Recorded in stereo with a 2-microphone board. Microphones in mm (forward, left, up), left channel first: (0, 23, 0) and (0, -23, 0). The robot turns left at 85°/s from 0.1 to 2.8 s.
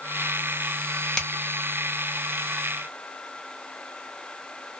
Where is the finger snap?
15° left (ahead or behind), 0.9 m; by 1.3 s 10° left (ahead or behind), 0.9 m.